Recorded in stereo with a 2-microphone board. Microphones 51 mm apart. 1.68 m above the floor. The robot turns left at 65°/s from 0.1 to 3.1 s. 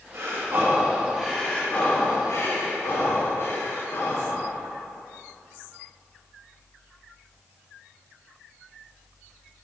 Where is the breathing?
105° right, 2.5 m; by 4.4 s 65° left, 2.5 m.